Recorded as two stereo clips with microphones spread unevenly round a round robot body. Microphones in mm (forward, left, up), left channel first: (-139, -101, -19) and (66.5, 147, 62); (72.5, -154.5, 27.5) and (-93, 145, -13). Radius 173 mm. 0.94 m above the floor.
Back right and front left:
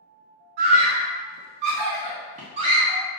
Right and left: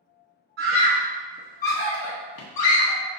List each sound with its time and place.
0.6 s a scream: 65° left, 0.7 m; by 3.0 s 35° right, 1.1 m